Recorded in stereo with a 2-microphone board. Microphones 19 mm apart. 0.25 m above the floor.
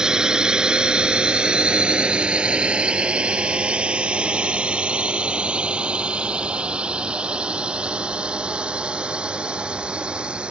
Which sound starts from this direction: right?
A drone, at 0.0 s.